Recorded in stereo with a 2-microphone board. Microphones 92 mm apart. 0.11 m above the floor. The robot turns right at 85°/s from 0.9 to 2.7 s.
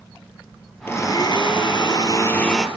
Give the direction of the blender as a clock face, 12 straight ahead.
11 o'clock.